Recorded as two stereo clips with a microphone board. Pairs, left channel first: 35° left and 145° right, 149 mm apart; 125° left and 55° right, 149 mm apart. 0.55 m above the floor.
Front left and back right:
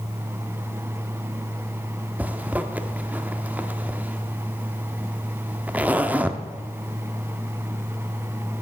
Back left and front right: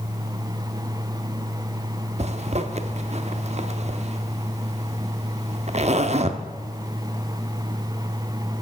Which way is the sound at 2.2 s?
70° right.